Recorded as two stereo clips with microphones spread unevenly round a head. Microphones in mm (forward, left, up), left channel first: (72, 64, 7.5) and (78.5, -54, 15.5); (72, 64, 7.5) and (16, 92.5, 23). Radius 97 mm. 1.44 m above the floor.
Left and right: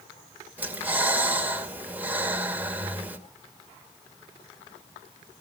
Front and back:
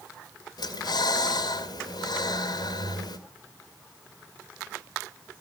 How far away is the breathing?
About 2 m.